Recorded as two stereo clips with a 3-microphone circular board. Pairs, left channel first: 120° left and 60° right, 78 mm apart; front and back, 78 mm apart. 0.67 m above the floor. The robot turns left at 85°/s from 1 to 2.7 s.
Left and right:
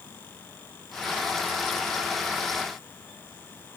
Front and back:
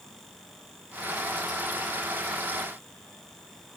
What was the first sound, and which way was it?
Only background noise.